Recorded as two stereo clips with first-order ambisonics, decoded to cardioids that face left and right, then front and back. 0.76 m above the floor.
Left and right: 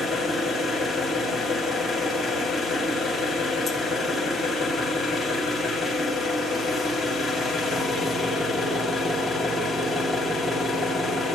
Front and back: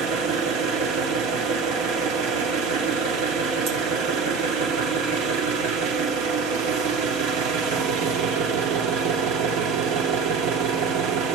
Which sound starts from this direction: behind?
An engine running, at 0.0 s.